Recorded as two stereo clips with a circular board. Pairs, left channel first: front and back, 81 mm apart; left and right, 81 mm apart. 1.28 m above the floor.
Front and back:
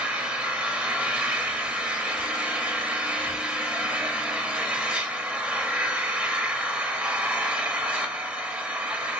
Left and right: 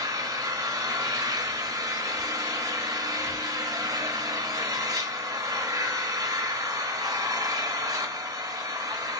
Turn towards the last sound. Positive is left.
turn(degrees=-110)